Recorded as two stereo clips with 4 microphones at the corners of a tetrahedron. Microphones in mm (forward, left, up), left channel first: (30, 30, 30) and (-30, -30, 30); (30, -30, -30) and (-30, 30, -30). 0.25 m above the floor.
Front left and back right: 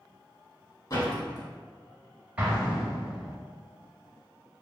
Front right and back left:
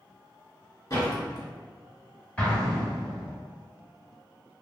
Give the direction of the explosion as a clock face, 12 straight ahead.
3 o'clock.